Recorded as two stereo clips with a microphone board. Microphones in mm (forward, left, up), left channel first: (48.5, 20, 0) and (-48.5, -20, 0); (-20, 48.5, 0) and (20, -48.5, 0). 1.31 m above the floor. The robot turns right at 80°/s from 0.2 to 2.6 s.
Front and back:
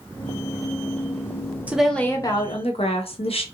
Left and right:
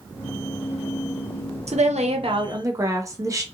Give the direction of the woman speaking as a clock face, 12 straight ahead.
3 o'clock.